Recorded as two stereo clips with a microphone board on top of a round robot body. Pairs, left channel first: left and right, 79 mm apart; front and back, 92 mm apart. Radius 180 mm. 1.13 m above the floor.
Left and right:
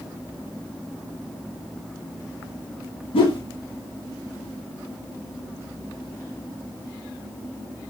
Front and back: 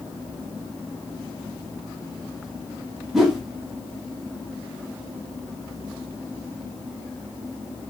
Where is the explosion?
No explosion in this recording.